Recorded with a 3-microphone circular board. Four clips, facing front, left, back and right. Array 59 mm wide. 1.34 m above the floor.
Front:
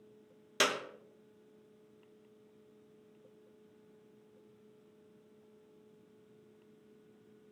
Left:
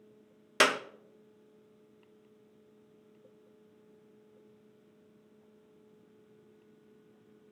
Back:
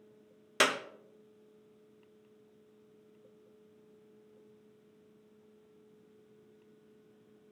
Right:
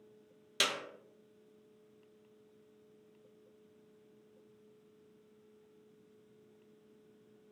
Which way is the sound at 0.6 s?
110° left.